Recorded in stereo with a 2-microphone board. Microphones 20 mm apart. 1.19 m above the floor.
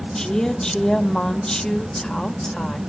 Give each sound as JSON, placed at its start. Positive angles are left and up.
{"t": 0.1, "sound": "a woman speaking", "side_deg": 40, "distance_m": 1.4}